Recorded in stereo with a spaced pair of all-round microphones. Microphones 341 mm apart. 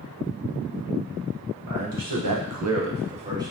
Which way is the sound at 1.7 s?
60° right (ahead or behind).